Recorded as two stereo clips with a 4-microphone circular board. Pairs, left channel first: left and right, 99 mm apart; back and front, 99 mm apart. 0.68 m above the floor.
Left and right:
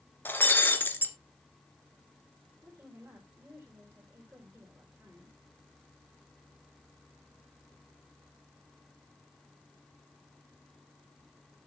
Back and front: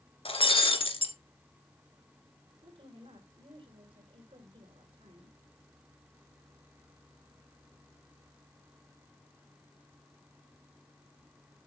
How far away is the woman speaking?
About 3.5 m.